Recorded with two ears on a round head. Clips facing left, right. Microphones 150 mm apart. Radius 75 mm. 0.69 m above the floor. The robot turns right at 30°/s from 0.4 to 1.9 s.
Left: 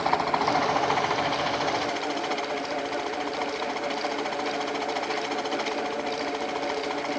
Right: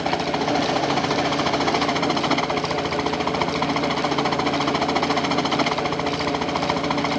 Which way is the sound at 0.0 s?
145° right.